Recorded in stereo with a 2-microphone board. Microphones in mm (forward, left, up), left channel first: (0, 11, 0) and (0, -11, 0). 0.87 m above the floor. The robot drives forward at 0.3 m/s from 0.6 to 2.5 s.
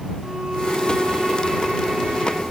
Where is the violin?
45° right (ahead or behind), 1.5 m; by 2.4 s 65° right (ahead or behind), 1.2 m.